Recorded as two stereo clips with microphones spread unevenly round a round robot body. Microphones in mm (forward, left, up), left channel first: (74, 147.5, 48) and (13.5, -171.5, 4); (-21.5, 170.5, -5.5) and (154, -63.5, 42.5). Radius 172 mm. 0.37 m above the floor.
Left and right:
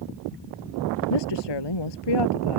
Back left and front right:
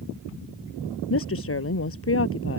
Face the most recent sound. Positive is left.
turn(degrees=85)